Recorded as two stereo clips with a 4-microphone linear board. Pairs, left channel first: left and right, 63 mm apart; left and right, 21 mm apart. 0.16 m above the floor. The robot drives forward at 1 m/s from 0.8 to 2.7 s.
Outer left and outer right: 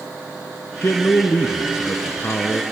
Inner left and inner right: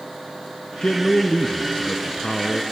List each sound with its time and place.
0.8 s a man speaking: 45° left (ahead or behind), 1.6 m; by 2.6 s 35° left (ahead or behind), 2.0 m